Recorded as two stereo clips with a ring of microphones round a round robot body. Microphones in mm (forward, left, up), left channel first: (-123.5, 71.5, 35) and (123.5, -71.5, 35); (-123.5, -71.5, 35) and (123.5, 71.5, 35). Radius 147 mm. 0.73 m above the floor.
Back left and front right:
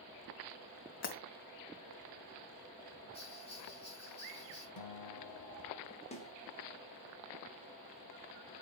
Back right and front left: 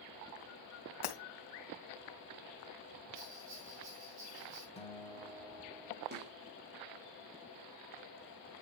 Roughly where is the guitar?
Behind left.